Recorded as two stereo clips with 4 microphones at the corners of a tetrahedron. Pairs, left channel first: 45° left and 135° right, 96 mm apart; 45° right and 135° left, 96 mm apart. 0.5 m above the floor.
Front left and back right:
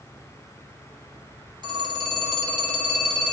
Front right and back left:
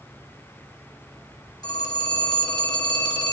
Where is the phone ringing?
90° right, 1.7 m.